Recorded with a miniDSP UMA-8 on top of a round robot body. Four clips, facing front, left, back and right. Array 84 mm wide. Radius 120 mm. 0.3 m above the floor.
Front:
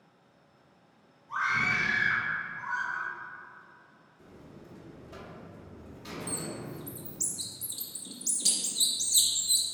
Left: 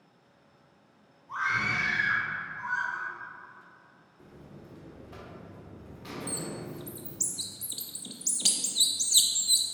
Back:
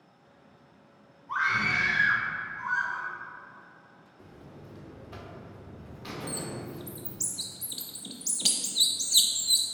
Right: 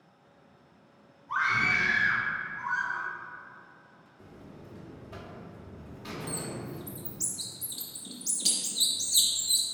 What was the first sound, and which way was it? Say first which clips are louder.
A scream: right 2 dB, back 2 dB; 150° right.